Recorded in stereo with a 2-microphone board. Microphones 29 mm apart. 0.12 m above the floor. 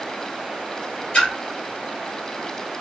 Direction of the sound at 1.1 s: 40° left (ahead or behind).